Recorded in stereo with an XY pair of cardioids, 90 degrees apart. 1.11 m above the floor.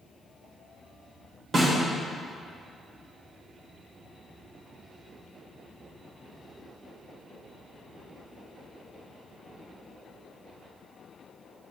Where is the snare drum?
50° right, 2 m.